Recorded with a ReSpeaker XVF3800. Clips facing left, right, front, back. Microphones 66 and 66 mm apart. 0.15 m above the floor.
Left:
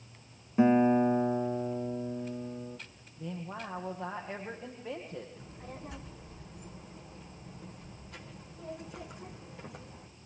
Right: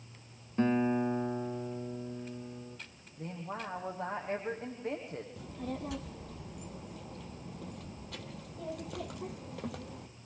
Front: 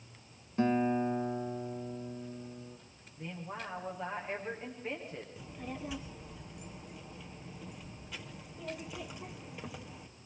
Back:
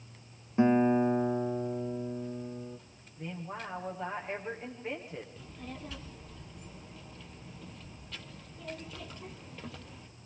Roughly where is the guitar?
Behind left.